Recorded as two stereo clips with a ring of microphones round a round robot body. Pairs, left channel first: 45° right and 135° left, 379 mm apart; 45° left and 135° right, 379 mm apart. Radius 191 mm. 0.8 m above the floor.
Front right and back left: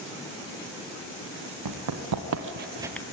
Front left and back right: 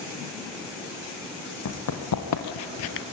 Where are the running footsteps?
95° left, 2.5 m; by 3.0 s 25° left, 0.8 m.